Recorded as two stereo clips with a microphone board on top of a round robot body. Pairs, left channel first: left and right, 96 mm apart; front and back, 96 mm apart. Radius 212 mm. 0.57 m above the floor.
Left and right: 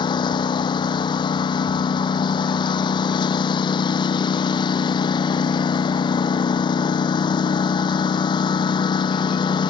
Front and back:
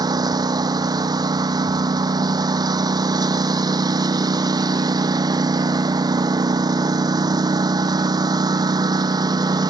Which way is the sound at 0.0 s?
130° left.